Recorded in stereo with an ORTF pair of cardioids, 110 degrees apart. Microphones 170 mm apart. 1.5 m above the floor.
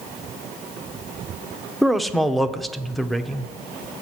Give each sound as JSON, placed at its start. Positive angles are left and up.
{"t": 1.8, "sound": "a man speaking", "azimuth_deg": 0, "distance_m": 0.7}